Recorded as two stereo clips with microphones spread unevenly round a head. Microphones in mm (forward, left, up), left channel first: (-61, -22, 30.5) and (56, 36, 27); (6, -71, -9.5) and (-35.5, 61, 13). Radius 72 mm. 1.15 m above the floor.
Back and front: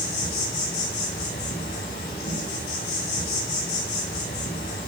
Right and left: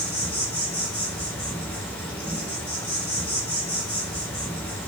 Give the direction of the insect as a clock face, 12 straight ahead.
5 o'clock.